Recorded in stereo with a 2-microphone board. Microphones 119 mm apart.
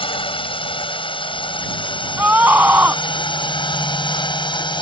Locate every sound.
0.0 s a drone: 45° left (ahead or behind); by 4.8 s 40° left (ahead or behind)
2.2 s a scream: 15° right (ahead or behind)